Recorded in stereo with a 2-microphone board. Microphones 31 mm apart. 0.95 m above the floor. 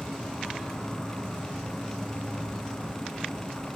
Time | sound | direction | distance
0.0 | an insect | 70° left (ahead or behind) | 4 m